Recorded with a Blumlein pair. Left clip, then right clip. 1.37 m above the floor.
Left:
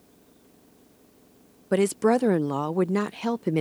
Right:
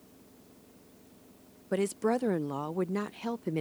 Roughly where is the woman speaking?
Left.